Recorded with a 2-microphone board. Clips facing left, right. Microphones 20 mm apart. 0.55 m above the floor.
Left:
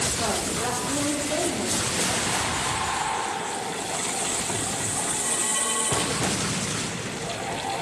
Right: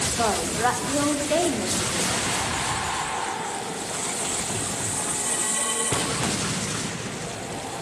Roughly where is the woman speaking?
Right.